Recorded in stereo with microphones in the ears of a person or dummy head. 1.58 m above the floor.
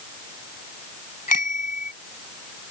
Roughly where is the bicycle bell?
Left.